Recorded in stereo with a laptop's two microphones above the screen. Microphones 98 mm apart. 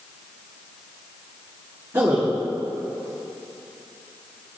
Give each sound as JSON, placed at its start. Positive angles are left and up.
{"t": 1.9, "sound": "a man speaking", "side_deg": -35, "distance_m": 1.6}